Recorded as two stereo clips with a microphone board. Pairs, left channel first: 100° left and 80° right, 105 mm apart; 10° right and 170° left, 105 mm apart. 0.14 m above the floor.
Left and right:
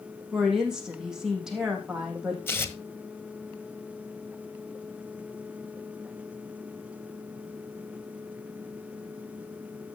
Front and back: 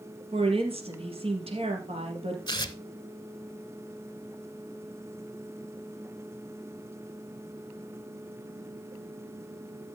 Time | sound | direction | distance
0.3 | a woman speaking | 165° right | 3.5 m
2.5 | tearing paper | 35° left | 1.0 m